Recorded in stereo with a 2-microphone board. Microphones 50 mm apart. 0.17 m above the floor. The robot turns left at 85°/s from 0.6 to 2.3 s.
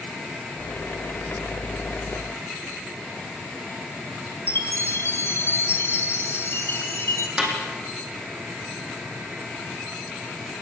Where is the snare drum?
15° right (ahead or behind), 6 m.